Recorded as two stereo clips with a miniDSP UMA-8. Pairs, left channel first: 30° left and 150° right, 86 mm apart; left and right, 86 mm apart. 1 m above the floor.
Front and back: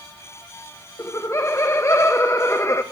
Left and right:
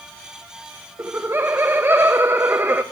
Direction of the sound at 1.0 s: 25° right.